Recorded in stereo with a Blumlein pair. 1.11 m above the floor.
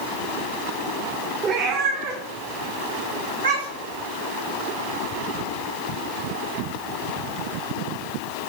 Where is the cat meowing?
30° right, 1.5 m; by 4.0 s 70° right, 3 m.